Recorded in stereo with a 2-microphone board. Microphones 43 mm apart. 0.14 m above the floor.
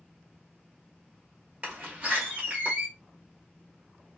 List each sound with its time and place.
1.6 s a door slam: 30° right (ahead or behind), 1.9 m